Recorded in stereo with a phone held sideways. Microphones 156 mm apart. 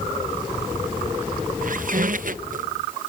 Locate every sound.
1.6 s a squeak: 60° right (ahead or behind)